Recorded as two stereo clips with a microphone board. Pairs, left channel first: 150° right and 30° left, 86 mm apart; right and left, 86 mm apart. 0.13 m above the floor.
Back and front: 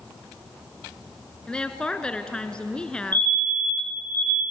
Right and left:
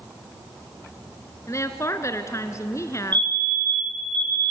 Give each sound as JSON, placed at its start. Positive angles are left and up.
{"t": 1.5, "sound": "a woman speaking", "azimuth_deg": -80, "distance_m": 1.3}
{"t": 3.1, "sound": "a fire alarm", "azimuth_deg": 60, "distance_m": 7.0}